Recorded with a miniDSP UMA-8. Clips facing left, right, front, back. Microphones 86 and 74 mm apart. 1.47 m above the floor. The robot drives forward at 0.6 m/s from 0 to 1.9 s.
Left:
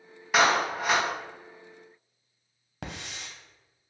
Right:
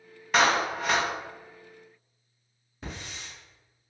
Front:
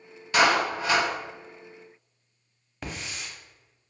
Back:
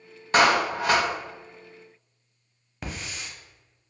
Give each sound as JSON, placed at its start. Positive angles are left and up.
{"t": 0.3, "sound": "a clap", "azimuth_deg": 175, "distance_m": 0.7}
{"t": 2.8, "sound": "a hiss", "azimuth_deg": 95, "distance_m": 0.7}